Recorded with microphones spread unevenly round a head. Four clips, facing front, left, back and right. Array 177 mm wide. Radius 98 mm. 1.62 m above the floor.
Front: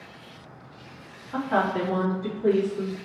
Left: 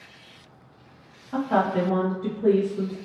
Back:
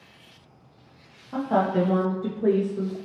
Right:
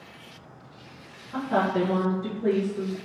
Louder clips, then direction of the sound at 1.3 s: Left 2 dB, back 2 dB; 150° left.